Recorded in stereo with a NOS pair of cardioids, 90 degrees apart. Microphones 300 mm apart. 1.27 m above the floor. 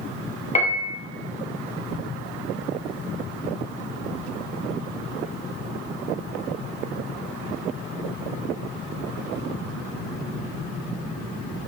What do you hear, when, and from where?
0.6 s a piano: 25° left, 0.5 m